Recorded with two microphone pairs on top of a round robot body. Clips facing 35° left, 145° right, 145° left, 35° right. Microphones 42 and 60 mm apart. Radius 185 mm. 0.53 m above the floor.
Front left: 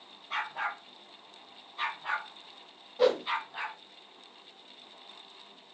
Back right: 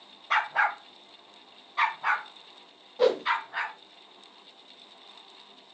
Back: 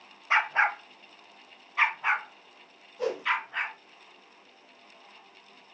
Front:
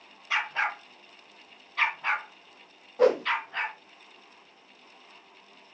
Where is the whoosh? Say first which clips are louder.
Back right 2 dB, front 9 dB; 60° right, 0.5 m.